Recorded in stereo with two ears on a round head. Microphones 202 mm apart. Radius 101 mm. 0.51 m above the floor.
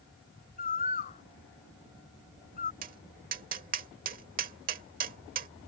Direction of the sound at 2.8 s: 40° right (ahead or behind).